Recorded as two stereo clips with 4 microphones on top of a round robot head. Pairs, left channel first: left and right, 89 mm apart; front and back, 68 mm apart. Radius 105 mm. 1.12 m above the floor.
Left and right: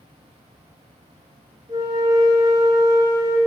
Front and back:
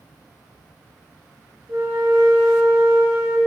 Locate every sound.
1.7 s a flute: 130° right, 1.1 m